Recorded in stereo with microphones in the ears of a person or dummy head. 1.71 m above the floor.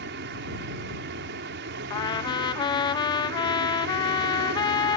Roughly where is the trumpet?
Left.